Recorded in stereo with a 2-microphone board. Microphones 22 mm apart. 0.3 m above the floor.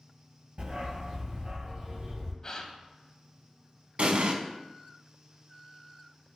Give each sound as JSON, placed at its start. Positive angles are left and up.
{"t": 0.6, "sound": "a dog barking", "side_deg": -50, "distance_m": 2.0}
{"t": 2.4, "sound": "a gasp", "side_deg": 30, "distance_m": 0.5}
{"t": 4.0, "sound": "an explosion", "side_deg": -65, "distance_m": 0.5}